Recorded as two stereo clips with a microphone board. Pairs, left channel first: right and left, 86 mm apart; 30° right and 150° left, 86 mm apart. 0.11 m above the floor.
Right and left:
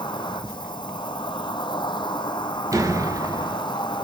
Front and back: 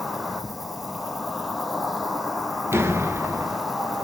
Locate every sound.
0.0 s an insect: 125° right, 1.0 m
2.7 s a door slam: 105° left, 0.9 m